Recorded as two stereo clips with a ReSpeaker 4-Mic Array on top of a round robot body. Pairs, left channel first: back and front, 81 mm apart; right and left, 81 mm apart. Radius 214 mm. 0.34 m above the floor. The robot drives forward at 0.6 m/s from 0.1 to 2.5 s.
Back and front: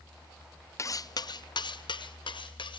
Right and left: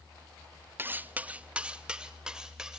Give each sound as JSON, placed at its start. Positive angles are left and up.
{"t": 0.8, "sound": "cutlery clinking", "azimuth_deg": 145, "distance_m": 0.6}